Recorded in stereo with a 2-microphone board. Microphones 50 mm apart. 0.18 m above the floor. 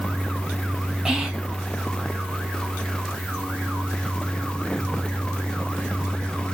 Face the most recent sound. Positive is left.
turn(degrees=-5)  # may be behind; listen again after turning